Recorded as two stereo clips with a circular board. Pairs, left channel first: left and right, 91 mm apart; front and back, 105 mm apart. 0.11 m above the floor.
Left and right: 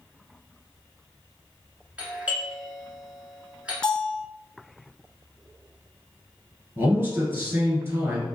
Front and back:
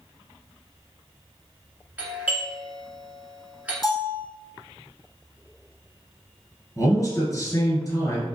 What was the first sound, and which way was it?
A doorbell, 135° right.